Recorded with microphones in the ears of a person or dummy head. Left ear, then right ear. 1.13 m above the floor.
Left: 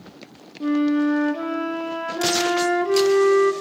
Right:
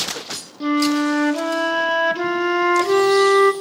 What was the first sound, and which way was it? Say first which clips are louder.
A flute: right 2 dB; 30° right (ahead or behind).